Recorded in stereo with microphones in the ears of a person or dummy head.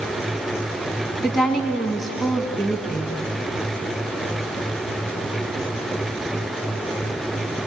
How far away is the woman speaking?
About 1.9 m.